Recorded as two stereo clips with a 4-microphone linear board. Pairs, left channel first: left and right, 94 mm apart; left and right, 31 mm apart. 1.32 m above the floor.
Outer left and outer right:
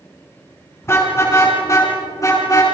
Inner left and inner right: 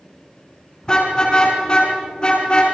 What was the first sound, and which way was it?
A car horn, 25° left (ahead or behind).